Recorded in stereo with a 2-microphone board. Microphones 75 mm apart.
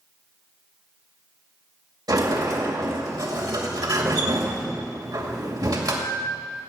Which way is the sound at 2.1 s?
65° right (ahead or behind).